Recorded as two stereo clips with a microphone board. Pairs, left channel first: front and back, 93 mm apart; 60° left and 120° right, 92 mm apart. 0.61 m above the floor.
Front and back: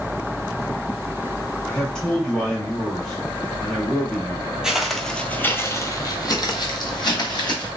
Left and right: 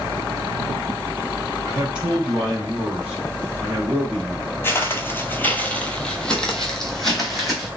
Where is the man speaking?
70° right, 1.2 m.